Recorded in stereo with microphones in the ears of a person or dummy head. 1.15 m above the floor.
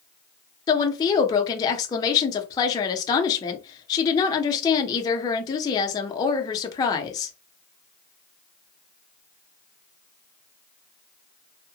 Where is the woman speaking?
20° left (ahead or behind), 0.5 m.